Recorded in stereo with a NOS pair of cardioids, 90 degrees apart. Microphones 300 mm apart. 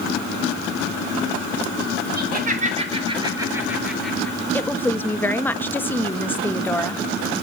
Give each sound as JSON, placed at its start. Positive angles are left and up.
{"t": 2.2, "sound": "laughter", "azimuth_deg": -30, "distance_m": 5.0}
{"t": 4.5, "sound": "a woman speaking", "azimuth_deg": 5, "distance_m": 1.1}